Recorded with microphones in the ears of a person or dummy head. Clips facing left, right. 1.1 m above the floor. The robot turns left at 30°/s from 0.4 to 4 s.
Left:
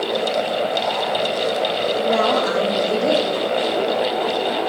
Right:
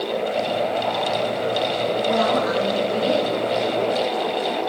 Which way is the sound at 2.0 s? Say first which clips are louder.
Left 2 dB; 135° left.